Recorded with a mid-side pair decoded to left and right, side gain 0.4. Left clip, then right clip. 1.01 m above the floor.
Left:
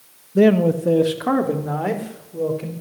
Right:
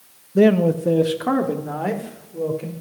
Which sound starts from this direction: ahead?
A man speaking, at 0.3 s.